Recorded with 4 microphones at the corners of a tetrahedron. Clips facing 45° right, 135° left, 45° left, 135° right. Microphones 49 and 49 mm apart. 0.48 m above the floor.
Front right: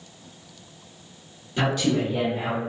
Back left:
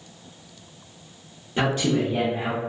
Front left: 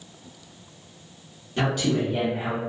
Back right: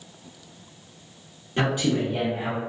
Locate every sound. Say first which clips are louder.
1.6 s a man speaking: back left 1 dB, even; 175° right, 0.9 m; by 2.6 s 95° left, 1.0 m